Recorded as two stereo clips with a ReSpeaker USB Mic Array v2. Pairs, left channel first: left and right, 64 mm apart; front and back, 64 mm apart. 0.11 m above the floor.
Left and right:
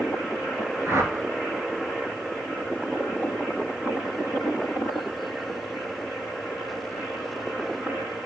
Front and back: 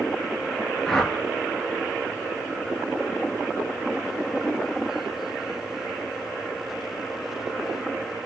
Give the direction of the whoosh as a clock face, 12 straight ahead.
3 o'clock.